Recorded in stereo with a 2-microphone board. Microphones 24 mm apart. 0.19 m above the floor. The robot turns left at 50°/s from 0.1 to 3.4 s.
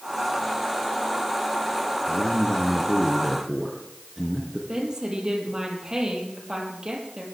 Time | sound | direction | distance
2.1 | a man speaking | 60° left | 2.5 m
4.7 | a woman speaking | 30° right (ahead or behind) | 5 m